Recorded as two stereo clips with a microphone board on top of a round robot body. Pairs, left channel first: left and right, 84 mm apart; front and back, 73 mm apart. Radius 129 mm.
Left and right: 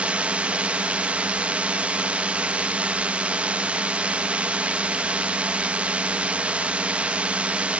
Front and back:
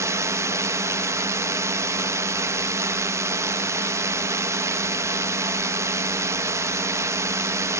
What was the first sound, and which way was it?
A drone, 160° right.